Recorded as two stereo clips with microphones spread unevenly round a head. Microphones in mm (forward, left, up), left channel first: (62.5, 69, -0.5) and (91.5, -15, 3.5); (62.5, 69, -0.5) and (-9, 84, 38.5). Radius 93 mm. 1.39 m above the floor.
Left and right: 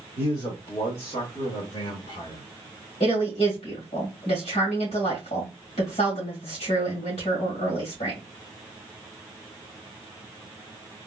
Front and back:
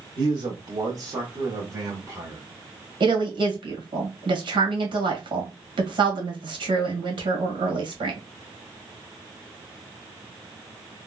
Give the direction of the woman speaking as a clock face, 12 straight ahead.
7 o'clock.